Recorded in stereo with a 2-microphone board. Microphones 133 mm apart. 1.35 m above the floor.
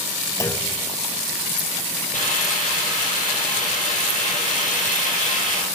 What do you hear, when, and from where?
0.4 s a clunk: 20° left (ahead or behind), 0.7 m
2.1 s a hiss: 75° left (ahead or behind), 8.5 m